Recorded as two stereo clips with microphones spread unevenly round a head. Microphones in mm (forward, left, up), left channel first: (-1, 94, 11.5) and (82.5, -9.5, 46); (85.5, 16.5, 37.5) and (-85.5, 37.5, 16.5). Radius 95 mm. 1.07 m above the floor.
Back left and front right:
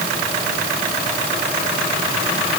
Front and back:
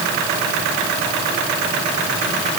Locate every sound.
Only background noise.